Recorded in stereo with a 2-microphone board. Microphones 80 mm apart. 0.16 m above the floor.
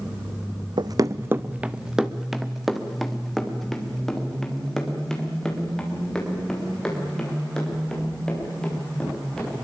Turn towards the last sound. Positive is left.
turn(degrees=10)  # may be behind; listen again after turning